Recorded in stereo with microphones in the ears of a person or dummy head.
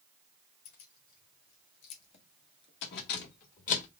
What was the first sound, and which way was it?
Keys jangling, 60° left (ahead or behind).